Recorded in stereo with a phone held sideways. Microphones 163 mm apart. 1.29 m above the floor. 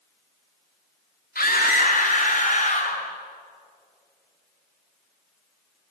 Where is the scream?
70° left (ahead or behind), 3 m; by 3.0 s 55° left (ahead or behind), 4 m.